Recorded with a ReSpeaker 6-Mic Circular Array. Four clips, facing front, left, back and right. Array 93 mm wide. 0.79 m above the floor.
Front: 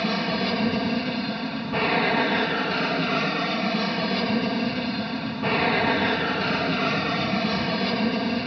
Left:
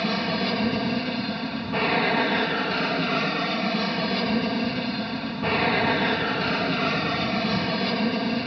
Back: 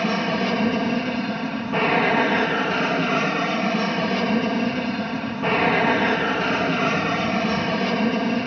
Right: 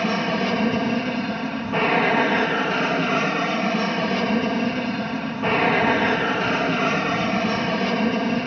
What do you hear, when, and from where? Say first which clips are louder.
0.0 s an aircraft: right 3 dB, back 3 dB; 135° right